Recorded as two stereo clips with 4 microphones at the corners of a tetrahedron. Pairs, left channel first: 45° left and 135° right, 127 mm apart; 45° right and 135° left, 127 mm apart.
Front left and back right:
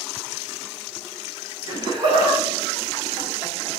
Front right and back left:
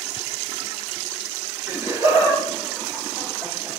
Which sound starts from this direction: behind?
Laughter, at 1.7 s.